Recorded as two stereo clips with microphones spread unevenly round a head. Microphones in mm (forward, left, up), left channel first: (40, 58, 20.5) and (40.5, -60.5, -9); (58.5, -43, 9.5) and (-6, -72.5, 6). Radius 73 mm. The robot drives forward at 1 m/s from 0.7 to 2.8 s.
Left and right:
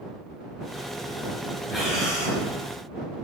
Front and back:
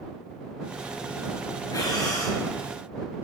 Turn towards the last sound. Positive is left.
turn(degrees=10)